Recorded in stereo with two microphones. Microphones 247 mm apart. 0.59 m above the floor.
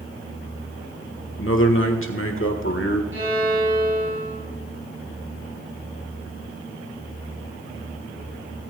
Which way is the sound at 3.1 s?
50° right (ahead or behind).